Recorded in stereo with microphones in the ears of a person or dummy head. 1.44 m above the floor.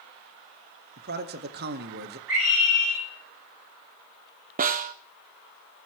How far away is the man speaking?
About 1.7 m.